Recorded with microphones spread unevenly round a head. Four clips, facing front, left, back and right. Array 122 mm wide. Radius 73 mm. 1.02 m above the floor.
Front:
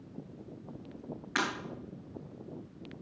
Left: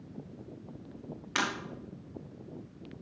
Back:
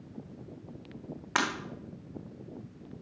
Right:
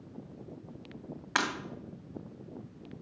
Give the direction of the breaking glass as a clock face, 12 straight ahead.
5 o'clock.